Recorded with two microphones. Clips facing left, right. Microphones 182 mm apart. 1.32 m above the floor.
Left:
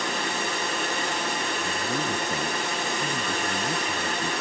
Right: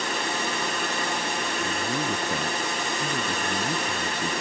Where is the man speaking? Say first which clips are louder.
Right 2 dB; 5° right (ahead or behind).